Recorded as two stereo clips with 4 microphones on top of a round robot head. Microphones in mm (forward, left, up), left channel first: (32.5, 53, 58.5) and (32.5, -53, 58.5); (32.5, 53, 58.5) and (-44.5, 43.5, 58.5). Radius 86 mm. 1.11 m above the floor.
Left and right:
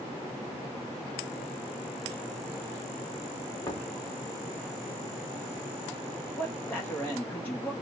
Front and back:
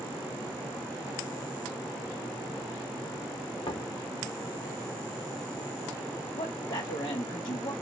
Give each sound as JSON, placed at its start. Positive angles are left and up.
{"t": 3.6, "sound": "knocking", "azimuth_deg": 30, "distance_m": 1.6}
{"t": 6.3, "sound": "a man speaking", "azimuth_deg": 15, "distance_m": 1.5}